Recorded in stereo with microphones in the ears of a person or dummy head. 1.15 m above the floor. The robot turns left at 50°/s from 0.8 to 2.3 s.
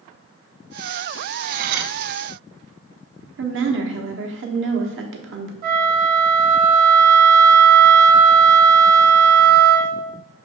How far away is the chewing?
I don't hear chewing.